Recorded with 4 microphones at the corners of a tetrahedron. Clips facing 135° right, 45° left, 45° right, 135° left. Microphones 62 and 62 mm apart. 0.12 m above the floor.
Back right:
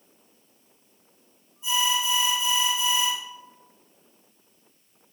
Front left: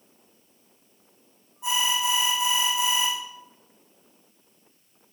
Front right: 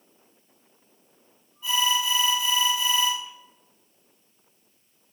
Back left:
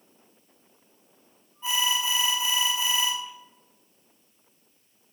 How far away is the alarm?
About 7.5 m.